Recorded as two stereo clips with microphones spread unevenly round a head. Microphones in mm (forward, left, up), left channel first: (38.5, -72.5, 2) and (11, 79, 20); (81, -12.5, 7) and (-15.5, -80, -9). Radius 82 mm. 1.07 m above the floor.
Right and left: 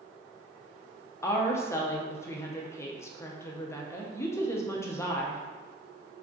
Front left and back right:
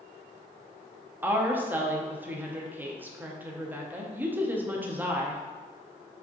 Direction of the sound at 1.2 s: 110° right.